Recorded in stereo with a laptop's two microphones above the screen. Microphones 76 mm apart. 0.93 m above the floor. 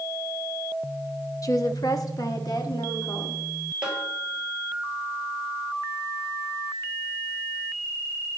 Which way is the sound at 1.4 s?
50° left (ahead or behind).